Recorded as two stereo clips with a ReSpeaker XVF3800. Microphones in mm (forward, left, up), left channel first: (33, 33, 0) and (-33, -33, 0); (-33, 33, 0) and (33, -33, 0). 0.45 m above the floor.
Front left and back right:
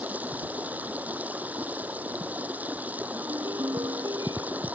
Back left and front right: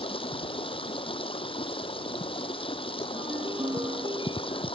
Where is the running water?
150° left.